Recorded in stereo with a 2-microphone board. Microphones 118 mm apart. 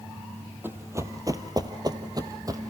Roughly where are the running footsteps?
Centre.